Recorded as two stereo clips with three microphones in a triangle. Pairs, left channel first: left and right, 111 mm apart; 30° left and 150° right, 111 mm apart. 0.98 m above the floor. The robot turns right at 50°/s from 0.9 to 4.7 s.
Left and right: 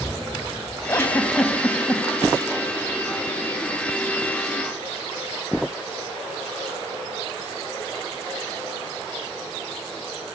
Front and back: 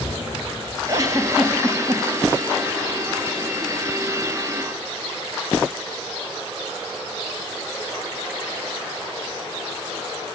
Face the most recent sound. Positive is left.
turn(degrees=-15)